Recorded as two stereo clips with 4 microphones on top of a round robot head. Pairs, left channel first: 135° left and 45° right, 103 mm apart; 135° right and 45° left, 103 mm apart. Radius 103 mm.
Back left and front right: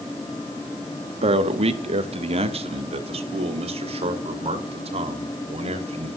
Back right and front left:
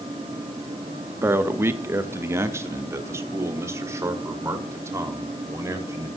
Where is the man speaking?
20° right, 2.0 m; by 6.1 s 15° right, 5.5 m.